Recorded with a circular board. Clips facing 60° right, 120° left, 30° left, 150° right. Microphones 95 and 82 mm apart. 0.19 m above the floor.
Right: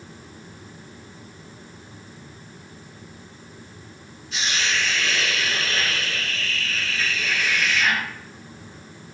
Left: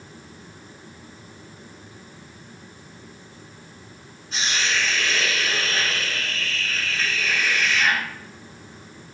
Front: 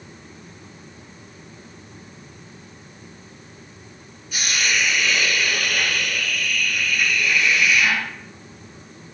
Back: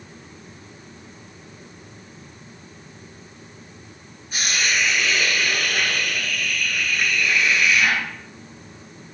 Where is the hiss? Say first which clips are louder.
Even, even; 165° left, 1.0 m.